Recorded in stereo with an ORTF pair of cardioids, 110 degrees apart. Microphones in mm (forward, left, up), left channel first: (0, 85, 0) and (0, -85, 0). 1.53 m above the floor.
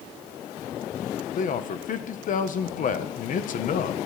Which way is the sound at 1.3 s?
50° left.